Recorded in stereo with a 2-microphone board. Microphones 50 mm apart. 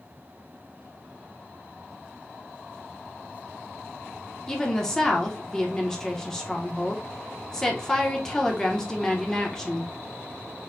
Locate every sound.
4.5 s a woman speaking: 10° left (ahead or behind), 1.1 m